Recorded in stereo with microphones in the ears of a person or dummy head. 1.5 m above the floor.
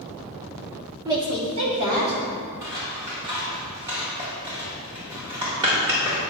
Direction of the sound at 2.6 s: 25° right (ahead or behind).